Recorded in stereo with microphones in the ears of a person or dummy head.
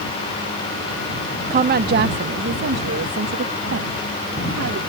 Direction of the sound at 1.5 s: 35° right (ahead or behind).